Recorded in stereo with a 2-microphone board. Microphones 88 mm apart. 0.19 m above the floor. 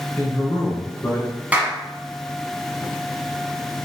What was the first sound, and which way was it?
A man speaking, 20° left (ahead or behind).